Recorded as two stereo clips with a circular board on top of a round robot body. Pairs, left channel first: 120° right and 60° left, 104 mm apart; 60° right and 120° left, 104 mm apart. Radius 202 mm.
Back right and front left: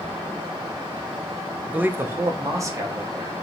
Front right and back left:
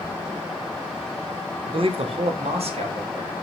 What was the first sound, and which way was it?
A man speaking, 135° left.